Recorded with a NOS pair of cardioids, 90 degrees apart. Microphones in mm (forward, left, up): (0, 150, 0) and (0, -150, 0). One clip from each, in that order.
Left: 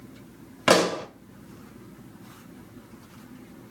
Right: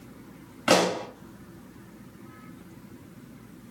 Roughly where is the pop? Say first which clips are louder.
Left 2 dB; ahead left.